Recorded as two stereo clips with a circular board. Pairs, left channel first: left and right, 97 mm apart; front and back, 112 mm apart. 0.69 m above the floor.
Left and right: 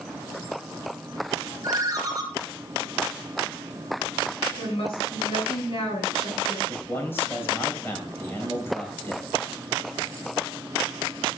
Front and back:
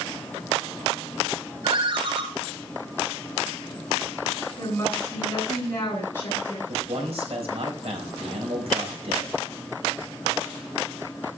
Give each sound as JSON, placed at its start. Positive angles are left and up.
{"t": 1.6, "sound": "a ringtone", "azimuth_deg": -140, "distance_m": 3.0}
{"t": 4.6, "sound": "a woman speaking", "azimuth_deg": 70, "distance_m": 8.0}
{"t": 6.7, "sound": "a man speaking", "azimuth_deg": 155, "distance_m": 3.5}